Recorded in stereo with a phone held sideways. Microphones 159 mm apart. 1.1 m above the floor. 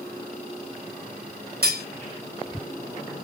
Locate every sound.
1.6 s cutlery clinking: 80° right, 1.0 m